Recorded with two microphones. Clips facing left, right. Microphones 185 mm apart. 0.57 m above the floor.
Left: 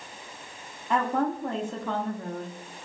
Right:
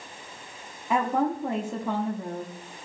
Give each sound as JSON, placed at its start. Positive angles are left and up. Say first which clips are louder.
{"t": 0.9, "sound": "a woman speaking", "louder": "right 1 dB", "side_deg": -10, "distance_m": 0.8}